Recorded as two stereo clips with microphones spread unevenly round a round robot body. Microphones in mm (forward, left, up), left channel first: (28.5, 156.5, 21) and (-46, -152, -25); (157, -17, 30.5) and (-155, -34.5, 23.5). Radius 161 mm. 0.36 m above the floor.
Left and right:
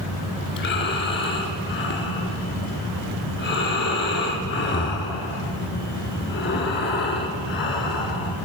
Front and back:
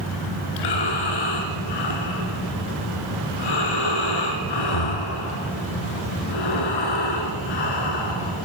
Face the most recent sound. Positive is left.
turn(degrees=20)